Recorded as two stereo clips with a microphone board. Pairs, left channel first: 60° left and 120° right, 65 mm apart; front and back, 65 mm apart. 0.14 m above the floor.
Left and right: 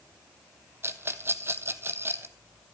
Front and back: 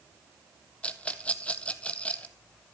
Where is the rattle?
70° right, 0.9 m.